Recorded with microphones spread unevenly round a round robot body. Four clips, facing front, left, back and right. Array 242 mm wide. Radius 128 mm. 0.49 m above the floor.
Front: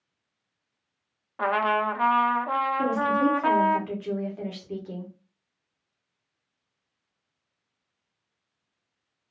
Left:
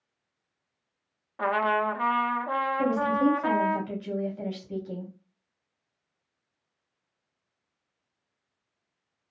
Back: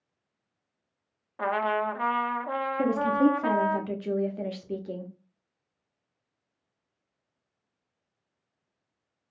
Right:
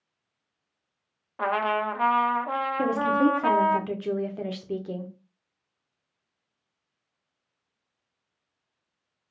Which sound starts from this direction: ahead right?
A trumpet, at 1.4 s.